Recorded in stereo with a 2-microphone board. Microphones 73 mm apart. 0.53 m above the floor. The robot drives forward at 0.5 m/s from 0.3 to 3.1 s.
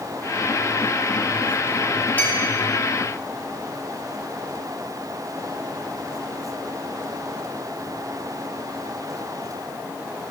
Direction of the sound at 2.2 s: 25° left (ahead or behind).